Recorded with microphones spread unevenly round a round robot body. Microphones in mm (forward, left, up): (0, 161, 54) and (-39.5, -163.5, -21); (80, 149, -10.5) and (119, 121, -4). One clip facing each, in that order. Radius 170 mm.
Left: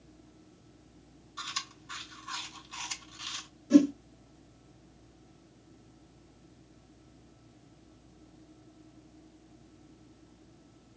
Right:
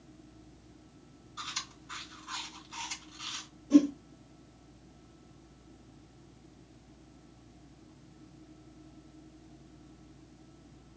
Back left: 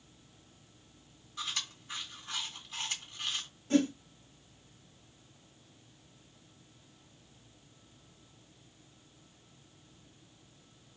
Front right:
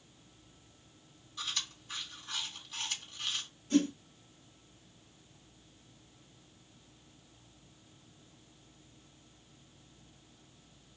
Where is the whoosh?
130° left, 1.6 m.